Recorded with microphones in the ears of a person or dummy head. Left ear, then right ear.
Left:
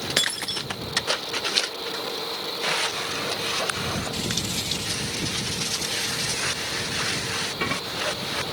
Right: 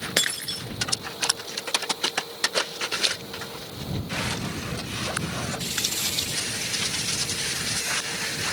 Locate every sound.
0.2 s breaking glass: centre (ahead or behind)